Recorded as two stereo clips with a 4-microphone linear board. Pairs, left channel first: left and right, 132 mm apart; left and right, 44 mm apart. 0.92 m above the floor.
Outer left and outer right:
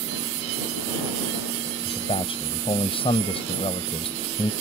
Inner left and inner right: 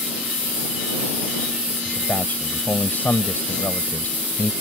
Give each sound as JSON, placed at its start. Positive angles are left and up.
{"t": 1.9, "sound": "a man speaking", "side_deg": 50}